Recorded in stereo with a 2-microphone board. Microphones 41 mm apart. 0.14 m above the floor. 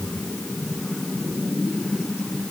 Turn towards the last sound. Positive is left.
No sound to turn to.